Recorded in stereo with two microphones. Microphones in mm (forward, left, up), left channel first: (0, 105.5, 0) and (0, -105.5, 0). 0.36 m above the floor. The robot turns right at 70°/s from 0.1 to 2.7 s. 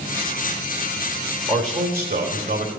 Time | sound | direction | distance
1.5 | a man speaking | 140° right | 1.6 m